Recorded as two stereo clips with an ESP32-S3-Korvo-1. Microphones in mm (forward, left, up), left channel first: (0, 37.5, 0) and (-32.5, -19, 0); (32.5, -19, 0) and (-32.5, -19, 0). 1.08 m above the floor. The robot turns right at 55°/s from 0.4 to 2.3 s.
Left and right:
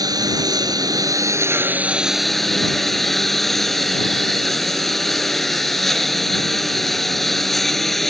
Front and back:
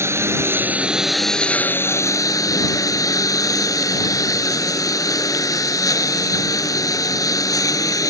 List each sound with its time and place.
0.0 s a lawn mower: 130° right; by 8.1 s 25° right